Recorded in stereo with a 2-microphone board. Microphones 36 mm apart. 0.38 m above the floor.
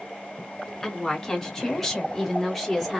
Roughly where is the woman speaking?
Centre.